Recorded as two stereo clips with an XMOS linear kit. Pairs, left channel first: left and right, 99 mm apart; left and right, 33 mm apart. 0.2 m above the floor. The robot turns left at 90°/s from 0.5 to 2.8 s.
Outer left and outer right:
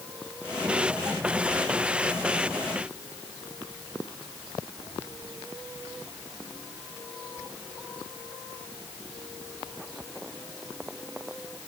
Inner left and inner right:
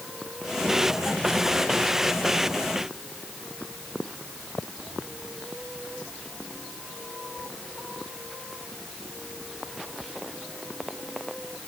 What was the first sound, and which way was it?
Only background noise.